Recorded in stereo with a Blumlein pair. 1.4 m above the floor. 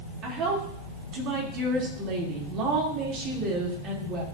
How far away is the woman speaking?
About 3 m.